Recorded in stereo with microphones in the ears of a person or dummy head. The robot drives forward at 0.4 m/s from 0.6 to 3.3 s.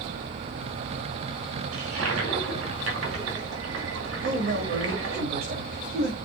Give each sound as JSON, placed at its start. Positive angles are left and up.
{"t": 1.7, "sound": "a toilet flushing", "side_deg": -85, "distance_m": 2.0}
{"t": 4.2, "sound": "a man speaking", "side_deg": -55, "distance_m": 3.5}